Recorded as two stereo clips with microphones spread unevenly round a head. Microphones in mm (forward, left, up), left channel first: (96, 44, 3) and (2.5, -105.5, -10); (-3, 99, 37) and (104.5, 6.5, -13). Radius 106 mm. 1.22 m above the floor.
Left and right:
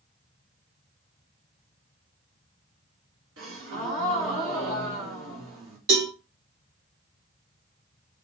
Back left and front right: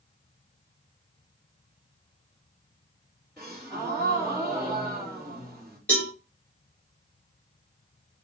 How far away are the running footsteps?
I don't hear running footsteps.